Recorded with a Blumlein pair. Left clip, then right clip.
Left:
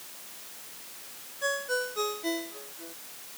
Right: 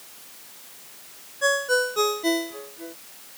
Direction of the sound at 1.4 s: 65° right.